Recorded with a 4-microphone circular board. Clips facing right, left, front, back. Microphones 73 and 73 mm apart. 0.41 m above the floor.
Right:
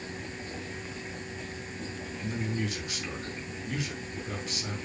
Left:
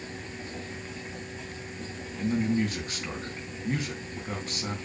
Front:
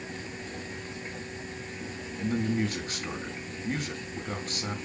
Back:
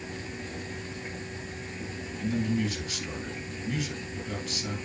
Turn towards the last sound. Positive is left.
turn(degrees=45)